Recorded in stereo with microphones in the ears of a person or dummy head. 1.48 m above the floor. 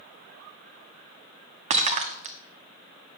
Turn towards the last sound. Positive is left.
turn(degrees=-40)  # may be behind; listen again after turning